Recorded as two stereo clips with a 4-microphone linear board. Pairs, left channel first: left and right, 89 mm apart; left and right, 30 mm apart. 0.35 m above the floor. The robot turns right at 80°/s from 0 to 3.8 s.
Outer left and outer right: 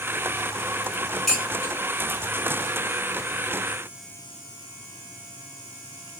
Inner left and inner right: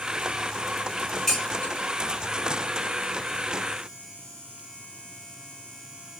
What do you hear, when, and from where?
1.3 s dishes clattering: 5° left (ahead or behind), 2 m; by 1.7 s 40° left (ahead or behind), 2 m